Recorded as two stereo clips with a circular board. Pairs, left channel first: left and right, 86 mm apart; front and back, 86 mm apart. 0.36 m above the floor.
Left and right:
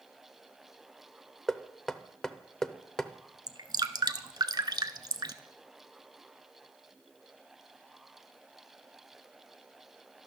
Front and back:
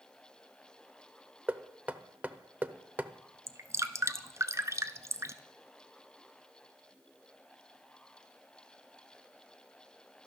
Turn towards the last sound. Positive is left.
turn(degrees=-125)